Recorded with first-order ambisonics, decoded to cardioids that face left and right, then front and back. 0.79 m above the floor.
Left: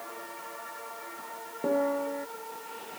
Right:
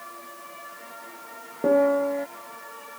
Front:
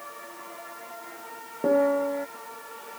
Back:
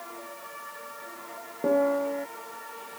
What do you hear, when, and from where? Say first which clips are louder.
1.6 s a piano: right 8 dB, front 2 dB; 75° right